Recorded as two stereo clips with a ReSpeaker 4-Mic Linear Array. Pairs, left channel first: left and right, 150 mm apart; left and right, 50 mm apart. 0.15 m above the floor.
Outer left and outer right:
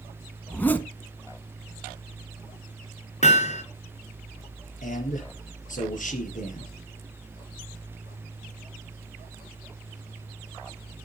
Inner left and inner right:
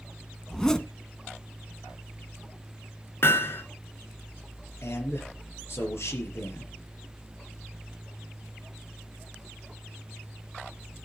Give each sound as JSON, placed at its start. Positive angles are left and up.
{"t": 0.5, "sound": "a zipper", "side_deg": 10, "distance_m": 1.1}
{"t": 3.2, "sound": "hammering", "side_deg": 50, "distance_m": 2.0}
{"t": 4.8, "sound": "a man speaking", "side_deg": 55, "distance_m": 4.0}